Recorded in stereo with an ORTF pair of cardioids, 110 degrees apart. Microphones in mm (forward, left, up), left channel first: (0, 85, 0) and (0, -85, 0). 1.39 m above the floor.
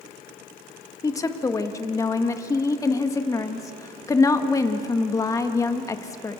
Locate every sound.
1.0 s a woman speaking: 20° left, 2 m